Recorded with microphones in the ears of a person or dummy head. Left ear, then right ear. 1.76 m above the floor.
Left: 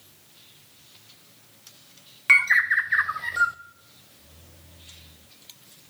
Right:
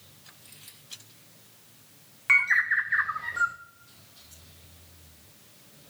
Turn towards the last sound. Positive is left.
turn(degrees=20)  # may be behind; listen again after turning